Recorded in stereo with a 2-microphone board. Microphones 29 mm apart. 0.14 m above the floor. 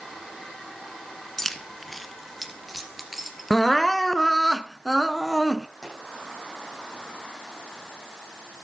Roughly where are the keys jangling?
Centre.